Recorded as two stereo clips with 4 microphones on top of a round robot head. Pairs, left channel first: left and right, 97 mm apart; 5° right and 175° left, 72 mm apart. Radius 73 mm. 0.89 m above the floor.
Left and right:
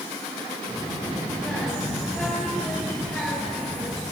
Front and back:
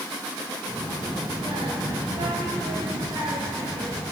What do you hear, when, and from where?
0.7 s a child speaking: 175° left, 3.5 m